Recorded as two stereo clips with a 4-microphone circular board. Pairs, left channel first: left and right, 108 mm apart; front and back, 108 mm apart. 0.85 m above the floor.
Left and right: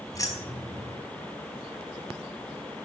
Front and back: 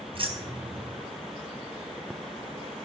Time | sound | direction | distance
0.1 | keys jangling | 145° left | 4 m